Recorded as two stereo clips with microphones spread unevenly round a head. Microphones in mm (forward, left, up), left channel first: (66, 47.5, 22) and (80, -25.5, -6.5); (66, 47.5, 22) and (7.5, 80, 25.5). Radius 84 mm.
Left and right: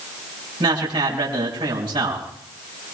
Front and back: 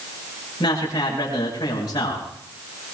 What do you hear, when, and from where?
0.6 s a man speaking: 90° right, 7 m